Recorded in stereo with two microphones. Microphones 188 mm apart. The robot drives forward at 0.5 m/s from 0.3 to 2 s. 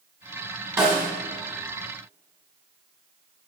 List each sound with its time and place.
0.8 s a snare drum: 20° right (ahead or behind), 1.6 m